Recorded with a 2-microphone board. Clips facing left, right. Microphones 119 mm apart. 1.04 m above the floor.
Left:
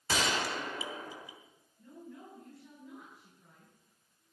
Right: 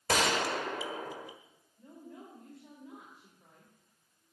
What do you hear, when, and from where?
0.1 s a gunshot: 60° right (ahead or behind), 1.2 m
1.8 s a woman speaking: 85° right, 4 m